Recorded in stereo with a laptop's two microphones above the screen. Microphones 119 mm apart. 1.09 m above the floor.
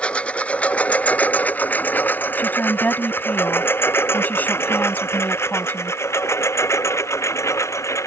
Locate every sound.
0.0 s a lawn mower: 10° left (ahead or behind); by 8.1 s 25° left (ahead or behind)
2.4 s a woman speaking: 15° left (ahead or behind)